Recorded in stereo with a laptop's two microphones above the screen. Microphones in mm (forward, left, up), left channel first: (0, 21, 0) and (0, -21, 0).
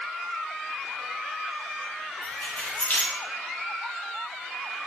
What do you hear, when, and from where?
2.2 s keys jangling: 45° left (ahead or behind), 1.0 m